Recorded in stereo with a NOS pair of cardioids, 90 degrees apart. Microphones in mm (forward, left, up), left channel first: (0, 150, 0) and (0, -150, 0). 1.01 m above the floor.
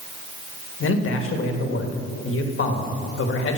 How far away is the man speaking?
About 1.4 m.